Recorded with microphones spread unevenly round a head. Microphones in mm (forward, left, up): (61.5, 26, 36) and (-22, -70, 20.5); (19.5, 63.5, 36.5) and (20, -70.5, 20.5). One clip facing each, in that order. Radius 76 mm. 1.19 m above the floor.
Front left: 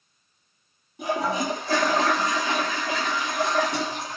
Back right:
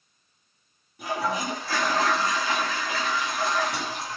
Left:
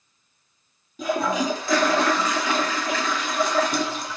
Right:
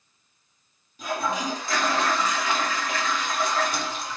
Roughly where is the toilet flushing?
Behind left.